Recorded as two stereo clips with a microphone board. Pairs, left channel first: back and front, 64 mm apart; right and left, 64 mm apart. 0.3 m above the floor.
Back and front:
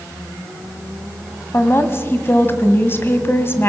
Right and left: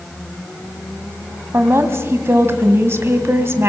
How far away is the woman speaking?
About 1.6 m.